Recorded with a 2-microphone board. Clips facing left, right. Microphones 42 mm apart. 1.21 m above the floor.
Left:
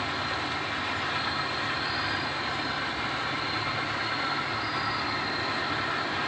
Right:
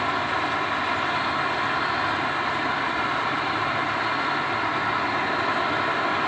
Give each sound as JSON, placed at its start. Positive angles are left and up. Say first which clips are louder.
{"t": 0.0, "sound": "an insect", "louder": "right 6 dB", "side_deg": -50}